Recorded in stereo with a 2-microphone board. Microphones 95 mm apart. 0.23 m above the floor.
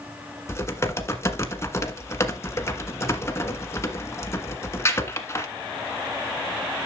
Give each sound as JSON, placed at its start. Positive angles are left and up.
{"t": 0.5, "sound": "typing on a keyboard", "side_deg": 30, "distance_m": 1.4}